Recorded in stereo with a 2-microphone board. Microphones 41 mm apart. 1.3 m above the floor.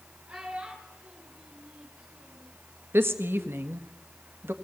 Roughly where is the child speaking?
Right.